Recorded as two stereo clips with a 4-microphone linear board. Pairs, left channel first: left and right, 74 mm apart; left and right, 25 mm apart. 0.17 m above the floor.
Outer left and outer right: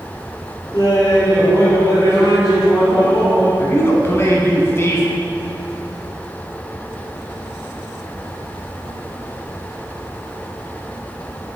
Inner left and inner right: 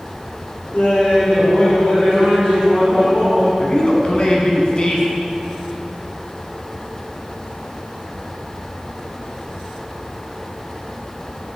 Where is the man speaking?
35° left (ahead or behind), 1.2 m.